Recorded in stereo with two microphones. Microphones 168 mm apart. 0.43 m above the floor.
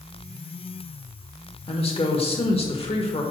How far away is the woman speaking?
About 1.3 m.